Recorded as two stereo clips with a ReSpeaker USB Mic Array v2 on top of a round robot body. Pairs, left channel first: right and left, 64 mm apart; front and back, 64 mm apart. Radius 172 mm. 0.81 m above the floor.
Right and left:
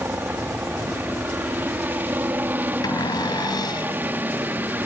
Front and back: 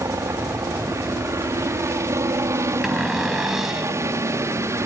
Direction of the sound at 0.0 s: 145° left.